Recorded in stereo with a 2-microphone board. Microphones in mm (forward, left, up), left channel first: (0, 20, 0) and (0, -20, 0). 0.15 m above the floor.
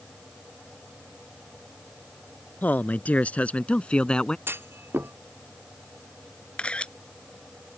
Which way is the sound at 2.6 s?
45° left (ahead or behind).